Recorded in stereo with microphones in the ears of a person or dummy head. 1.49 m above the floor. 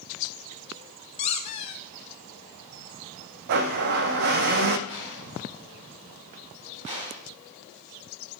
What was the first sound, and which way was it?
A squeak, 35° left (ahead or behind).